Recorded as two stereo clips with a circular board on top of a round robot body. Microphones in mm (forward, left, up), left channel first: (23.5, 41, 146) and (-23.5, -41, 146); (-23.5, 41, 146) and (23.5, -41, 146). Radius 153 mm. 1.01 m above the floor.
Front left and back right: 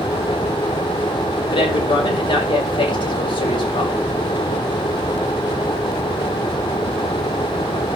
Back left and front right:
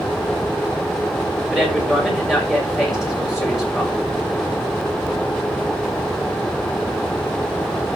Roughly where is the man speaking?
Ahead left.